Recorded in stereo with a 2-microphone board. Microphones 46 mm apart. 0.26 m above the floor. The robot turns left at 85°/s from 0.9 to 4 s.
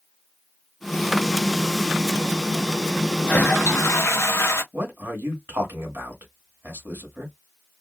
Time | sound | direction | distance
3.3 | a toilet flushing | 145° left | 1.2 m
4.7 | a man speaking | 60° right (ahead or behind) | 2.5 m